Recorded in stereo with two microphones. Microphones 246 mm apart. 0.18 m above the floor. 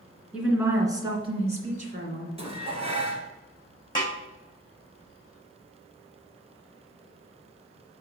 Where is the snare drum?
15° left (ahead or behind), 3.5 m.